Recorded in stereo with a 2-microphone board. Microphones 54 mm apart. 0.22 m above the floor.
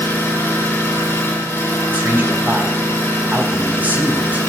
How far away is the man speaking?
About 1.4 m.